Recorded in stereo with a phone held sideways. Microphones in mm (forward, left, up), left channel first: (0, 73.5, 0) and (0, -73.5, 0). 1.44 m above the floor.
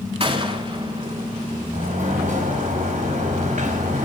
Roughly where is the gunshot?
Right.